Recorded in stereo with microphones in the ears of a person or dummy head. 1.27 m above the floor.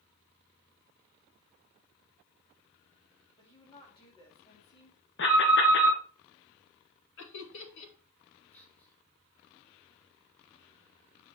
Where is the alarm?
55° left (ahead or behind), 1.6 m.